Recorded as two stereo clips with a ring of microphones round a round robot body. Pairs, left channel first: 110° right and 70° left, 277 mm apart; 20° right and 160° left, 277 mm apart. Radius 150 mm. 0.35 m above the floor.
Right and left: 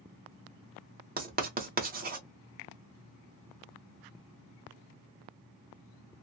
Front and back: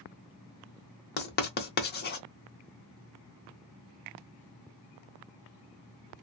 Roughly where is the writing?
Ahead.